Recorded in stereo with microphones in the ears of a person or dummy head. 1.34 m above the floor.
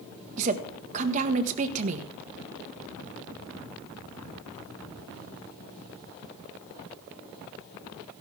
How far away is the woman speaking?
About 1.4 m.